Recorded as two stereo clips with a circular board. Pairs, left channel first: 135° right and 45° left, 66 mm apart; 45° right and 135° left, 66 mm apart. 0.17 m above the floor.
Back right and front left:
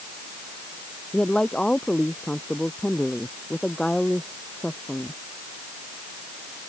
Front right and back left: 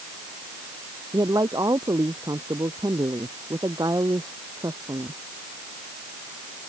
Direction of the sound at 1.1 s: 145° left.